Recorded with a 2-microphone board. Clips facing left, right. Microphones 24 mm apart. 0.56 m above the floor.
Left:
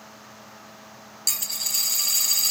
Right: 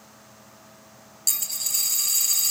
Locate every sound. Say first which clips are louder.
1.3 s a dropped coin: left 1 dB; 20° left (ahead or behind), 0.6 m